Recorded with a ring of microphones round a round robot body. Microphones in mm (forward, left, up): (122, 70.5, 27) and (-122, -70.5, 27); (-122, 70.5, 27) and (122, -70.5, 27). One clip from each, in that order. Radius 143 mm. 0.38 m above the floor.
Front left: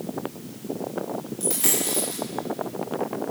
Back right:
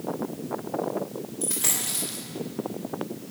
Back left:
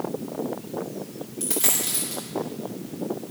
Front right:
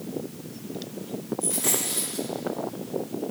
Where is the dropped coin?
105° left, 4.5 m.